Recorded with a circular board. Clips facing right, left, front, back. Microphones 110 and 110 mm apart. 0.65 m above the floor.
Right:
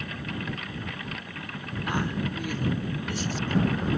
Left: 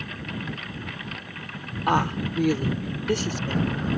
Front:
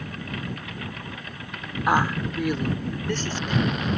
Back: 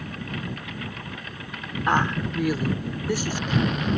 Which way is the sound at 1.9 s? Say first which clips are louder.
Left 6 dB, front 1 dB; 80° left.